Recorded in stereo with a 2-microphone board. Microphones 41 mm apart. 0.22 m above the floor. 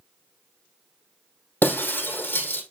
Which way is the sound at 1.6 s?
55° left (ahead or behind).